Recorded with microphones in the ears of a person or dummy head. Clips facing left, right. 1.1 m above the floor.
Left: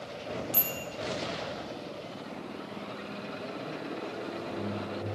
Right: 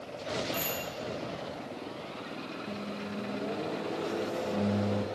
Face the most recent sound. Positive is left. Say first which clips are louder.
# right 3 dB
turn(degrees=-85)